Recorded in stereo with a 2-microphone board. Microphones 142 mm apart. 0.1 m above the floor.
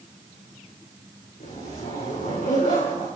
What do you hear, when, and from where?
1.4 s a zipper: 75° left (ahead or behind), 7.5 m